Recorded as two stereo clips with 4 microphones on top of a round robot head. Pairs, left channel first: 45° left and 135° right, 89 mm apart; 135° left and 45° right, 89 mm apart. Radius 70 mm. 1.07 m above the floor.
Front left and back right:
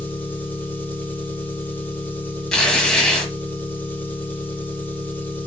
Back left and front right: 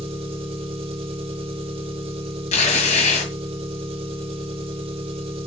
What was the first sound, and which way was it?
An engine running, 25° right.